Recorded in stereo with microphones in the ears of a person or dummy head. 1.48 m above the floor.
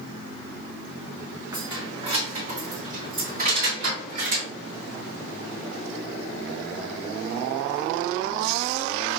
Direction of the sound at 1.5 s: 15° right (ahead or behind).